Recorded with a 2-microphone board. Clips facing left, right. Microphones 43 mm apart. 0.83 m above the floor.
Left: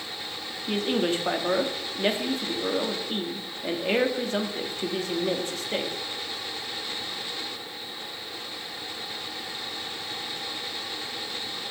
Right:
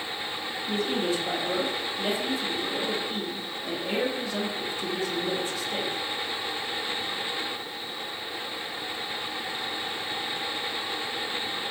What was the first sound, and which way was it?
A man speaking, 45° left (ahead or behind).